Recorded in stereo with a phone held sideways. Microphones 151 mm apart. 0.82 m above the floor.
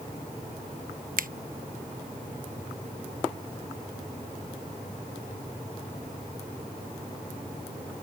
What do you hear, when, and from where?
1.2 s a finger snap: 65° right (ahead or behind)